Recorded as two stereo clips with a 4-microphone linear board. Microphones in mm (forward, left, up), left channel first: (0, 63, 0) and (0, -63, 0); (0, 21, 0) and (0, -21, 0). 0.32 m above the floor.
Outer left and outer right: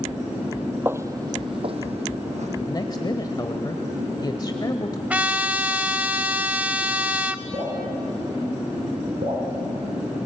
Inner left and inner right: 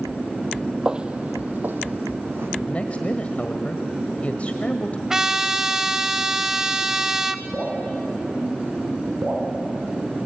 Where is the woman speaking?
35° left (ahead or behind), 1.3 m.